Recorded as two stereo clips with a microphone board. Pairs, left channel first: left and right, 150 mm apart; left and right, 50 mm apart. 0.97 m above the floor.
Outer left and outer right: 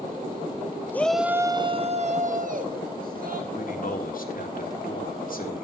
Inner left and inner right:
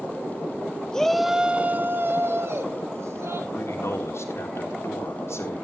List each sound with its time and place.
0.9 s a shout: 15° left (ahead or behind), 1.0 m; by 3.4 s 75° right (ahead or behind), 2.5 m
3.5 s a man speaking: 70° left (ahead or behind), 3 m